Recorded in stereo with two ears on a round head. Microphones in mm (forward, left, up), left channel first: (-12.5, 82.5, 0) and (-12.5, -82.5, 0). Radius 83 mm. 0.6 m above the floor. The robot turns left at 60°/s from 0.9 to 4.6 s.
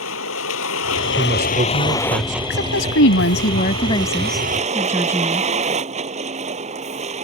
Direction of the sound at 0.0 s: 80° left.